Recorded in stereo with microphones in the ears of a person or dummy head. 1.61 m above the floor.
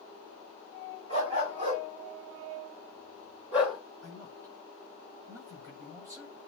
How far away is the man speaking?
About 7.5 m.